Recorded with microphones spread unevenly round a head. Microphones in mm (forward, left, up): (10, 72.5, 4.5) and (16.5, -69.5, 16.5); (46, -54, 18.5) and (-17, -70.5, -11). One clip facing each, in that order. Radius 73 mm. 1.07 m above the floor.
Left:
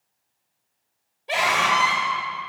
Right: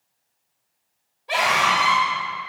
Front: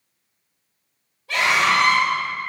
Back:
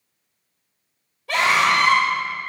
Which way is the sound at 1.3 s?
160° left.